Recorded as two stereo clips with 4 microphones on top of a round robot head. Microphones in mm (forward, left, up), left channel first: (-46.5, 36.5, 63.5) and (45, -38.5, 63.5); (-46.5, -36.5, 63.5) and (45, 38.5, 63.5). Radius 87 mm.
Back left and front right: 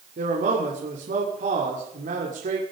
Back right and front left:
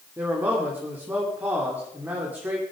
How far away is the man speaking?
About 3 m.